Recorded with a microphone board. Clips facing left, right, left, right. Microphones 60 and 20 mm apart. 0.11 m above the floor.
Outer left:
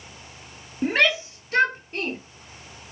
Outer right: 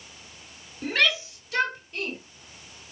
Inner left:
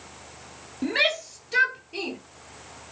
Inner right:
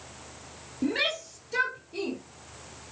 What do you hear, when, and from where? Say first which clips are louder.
0.8 s a shout: outer left 4 dB, inner left 4 dB; 25° left (ahead or behind), 2 m; by 2.2 s 45° left (ahead or behind), 3 m